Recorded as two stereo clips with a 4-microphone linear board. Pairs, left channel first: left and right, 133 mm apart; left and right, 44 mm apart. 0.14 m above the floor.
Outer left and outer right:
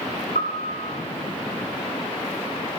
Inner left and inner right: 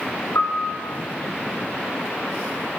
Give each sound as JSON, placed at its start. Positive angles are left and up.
{"t": 0.3, "sound": "a piano", "side_deg": 85, "distance_m": 8.5}